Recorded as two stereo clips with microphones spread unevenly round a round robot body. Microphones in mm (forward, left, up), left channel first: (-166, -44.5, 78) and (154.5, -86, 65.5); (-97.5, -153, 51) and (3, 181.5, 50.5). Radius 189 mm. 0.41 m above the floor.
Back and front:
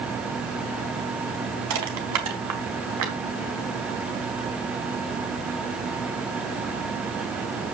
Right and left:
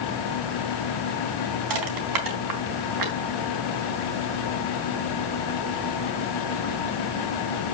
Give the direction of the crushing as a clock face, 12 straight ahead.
11 o'clock.